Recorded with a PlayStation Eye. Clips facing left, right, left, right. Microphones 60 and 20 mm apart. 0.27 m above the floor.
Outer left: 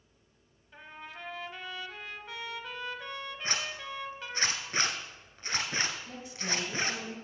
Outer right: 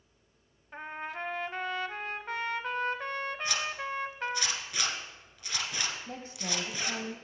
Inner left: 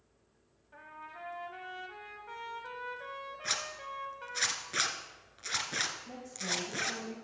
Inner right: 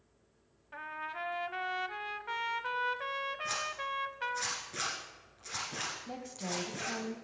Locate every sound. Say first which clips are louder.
0.7 s a trumpet: outer right 8 dB, inner right 8 dB; 45° right (ahead or behind), 0.6 m
3.4 s a zipper: outer right 2 dB, inner right 1 dB; 40° left (ahead or behind), 1.4 m
6.1 s a woman speaking: outer left 1 dB, inner left 2 dB; 45° right (ahead or behind), 1.7 m